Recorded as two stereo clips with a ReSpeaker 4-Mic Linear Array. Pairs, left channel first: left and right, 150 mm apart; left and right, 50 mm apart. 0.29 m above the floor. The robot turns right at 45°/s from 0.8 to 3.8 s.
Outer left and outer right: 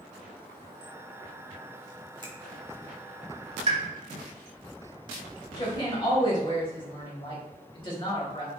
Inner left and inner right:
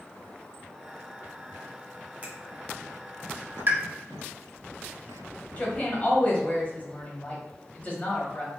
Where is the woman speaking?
30° left (ahead or behind), 1.3 m.